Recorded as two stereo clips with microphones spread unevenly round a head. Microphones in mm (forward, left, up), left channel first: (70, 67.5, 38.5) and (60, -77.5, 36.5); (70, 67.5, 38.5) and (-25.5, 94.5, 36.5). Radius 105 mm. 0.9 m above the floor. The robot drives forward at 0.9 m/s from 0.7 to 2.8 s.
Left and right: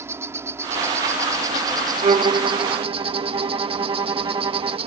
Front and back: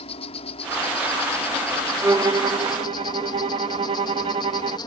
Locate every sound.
0.0 s an insect: 25° right; by 4.9 s 55° right
2.0 s a violin: 130° right; by 4.8 s 165° right